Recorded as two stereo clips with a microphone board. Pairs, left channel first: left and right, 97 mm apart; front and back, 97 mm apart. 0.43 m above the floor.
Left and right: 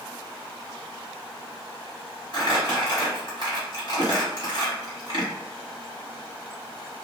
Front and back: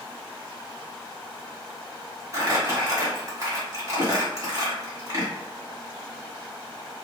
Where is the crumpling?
125° left, 1.5 m.